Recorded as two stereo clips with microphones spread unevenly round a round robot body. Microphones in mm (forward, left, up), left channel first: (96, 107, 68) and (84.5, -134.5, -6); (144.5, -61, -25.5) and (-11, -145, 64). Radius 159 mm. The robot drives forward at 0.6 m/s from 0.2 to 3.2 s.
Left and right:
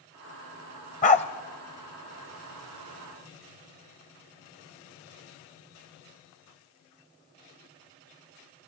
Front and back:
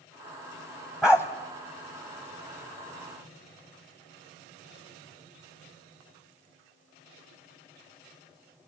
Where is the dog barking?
140° left, 0.8 m; by 1.2 s 145° left, 0.9 m.